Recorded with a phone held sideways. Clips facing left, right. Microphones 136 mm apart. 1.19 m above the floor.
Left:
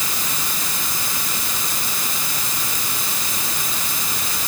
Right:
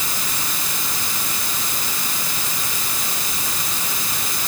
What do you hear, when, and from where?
Only background noise.